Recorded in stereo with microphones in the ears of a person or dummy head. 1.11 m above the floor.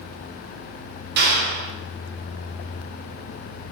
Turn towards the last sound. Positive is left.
turn(degrees=-55)  # may be behind; listen again after turning